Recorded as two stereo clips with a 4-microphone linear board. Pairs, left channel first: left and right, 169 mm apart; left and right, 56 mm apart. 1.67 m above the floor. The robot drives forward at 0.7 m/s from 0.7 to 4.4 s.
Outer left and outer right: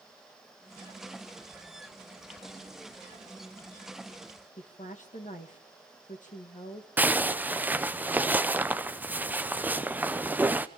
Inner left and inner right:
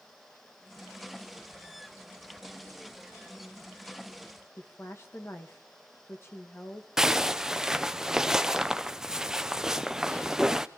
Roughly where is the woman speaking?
Left.